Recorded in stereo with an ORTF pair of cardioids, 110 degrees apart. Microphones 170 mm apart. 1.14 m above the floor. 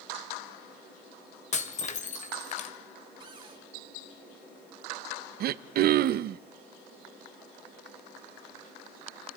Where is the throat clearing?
60° right, 0.8 m.